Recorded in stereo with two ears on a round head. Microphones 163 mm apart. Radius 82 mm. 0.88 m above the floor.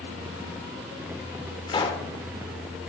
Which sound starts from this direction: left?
A pop, at 1.7 s.